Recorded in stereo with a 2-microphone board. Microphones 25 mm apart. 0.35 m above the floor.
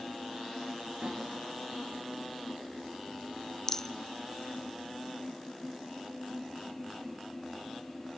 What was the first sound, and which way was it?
A snare drum, 45° right (ahead or behind).